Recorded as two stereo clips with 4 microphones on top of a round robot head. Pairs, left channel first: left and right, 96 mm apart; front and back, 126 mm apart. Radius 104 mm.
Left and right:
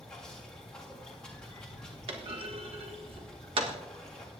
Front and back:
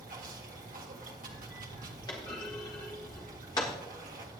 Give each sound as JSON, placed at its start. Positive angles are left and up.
{"t": 0.0, "sound": "running water", "azimuth_deg": 175, "distance_m": 1.7}
{"t": 2.1, "sound": "a clunk", "azimuth_deg": -70, "distance_m": 1.3}